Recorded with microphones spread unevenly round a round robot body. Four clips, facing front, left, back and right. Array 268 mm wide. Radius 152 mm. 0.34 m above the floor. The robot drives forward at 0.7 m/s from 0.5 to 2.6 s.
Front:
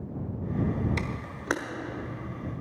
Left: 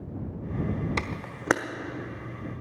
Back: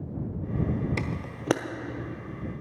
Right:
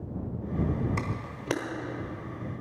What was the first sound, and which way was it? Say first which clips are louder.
A camera shutter: left 1 dB, back 1 dB; 115° left.